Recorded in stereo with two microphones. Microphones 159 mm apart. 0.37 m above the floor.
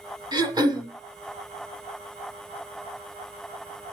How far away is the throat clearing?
About 1.2 m.